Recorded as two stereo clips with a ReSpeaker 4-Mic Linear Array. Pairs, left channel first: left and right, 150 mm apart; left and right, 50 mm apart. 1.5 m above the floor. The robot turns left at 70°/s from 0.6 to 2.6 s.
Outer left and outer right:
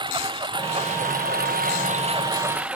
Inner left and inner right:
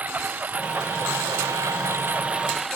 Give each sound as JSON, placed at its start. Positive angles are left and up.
{"t": 0.0, "sound": "a lawn mower", "azimuth_deg": -30}